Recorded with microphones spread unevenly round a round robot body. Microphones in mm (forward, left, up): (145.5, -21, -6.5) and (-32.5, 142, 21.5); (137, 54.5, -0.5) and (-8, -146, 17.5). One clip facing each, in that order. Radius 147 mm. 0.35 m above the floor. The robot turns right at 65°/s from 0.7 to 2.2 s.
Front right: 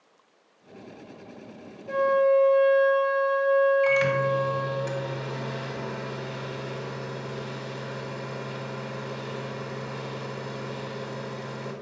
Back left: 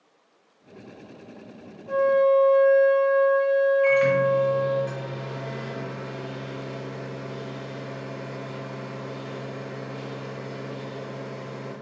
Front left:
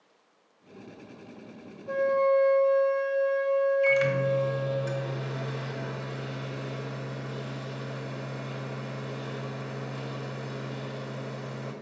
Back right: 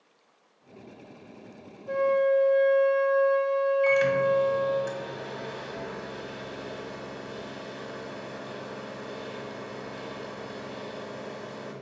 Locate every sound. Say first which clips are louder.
1.9 s a flute: back left 2 dB, back right 1 dB; 60° right, 2 m; by 4.8 s 40° right, 2 m
3.8 s a microwave: back left 4 dB, back right 2 dB; 30° right, 1.5 m